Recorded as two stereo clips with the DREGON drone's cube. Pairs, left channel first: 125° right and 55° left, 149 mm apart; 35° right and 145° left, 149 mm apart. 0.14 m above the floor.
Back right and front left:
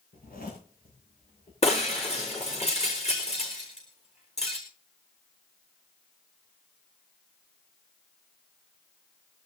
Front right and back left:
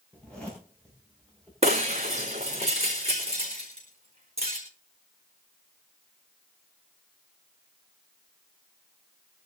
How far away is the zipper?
About 7.5 m.